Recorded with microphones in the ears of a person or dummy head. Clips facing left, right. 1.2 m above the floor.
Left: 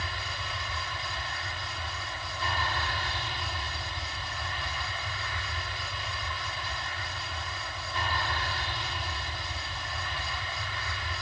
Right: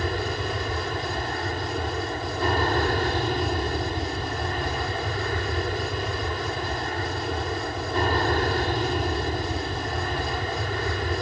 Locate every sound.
0.0 s an aircraft: 45° right (ahead or behind)